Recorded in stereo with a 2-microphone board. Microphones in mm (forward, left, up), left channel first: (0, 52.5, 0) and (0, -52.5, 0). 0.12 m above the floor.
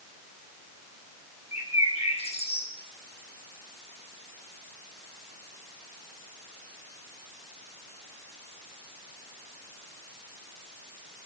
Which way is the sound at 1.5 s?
75° left (ahead or behind).